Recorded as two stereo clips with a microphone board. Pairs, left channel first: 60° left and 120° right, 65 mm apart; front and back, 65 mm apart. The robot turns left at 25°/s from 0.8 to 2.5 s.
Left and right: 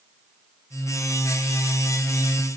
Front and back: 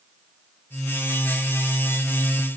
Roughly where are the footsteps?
No footsteps in this recording.